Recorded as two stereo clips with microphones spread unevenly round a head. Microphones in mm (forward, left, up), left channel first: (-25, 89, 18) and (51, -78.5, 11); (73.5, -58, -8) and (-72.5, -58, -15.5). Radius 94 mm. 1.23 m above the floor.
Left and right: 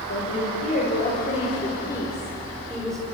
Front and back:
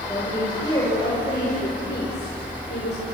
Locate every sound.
0.1 s a woman speaking: 75° left, 5.5 m; by 3.0 s 25° left, 4.5 m